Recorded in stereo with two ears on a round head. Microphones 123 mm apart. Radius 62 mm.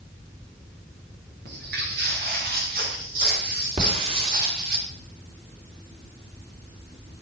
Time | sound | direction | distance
1.4 | footsteps | 85° right | 9.5 m
3.8 | a hiss | 40° right (ahead or behind) | 3.5 m